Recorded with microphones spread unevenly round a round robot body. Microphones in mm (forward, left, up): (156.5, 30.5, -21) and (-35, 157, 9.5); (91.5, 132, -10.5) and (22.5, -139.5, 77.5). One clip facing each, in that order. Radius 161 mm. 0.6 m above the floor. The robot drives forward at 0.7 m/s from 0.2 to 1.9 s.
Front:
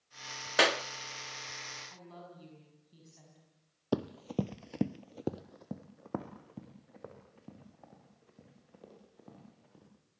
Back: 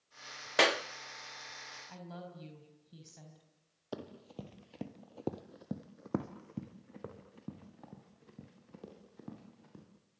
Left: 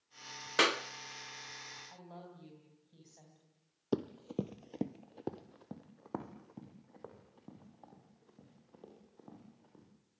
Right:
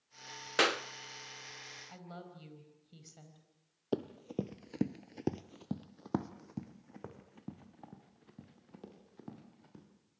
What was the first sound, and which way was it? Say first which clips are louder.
A clap: even, right 1 dB; 35° left.